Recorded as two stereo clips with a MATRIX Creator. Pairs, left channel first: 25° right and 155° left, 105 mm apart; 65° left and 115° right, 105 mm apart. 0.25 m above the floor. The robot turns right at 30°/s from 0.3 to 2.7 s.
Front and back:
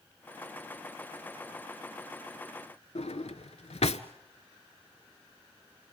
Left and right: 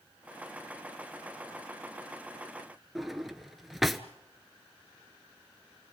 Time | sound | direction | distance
3.0 | a drawer | 25° right | 0.8 m